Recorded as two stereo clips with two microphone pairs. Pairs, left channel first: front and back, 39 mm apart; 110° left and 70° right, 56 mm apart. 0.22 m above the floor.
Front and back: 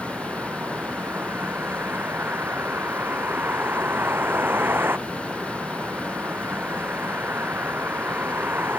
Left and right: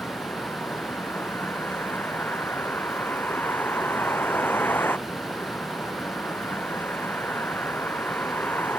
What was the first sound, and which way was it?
A vehicle, 160° left.